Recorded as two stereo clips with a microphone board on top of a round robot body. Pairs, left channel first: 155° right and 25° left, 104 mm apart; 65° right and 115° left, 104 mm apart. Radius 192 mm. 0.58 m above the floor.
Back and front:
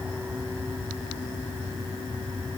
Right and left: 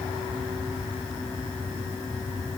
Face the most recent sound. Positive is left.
No sound to turn to.